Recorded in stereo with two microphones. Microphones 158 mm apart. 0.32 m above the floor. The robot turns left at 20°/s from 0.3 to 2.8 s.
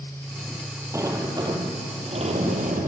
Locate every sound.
0.9 s a sliding door: 20° right, 3.5 m; by 2.9 s 55° right, 3.5 m